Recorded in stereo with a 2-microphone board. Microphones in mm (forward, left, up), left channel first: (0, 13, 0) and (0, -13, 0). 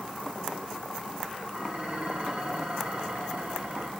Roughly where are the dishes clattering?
Right.